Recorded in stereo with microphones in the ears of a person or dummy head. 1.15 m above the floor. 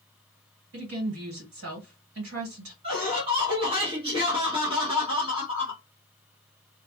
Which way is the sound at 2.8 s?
30° right (ahead or behind).